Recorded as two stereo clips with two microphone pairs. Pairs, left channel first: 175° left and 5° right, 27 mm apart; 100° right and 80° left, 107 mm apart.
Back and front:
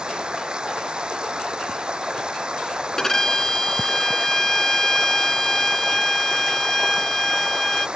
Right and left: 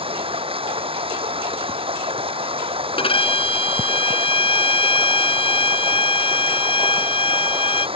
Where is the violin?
120° right.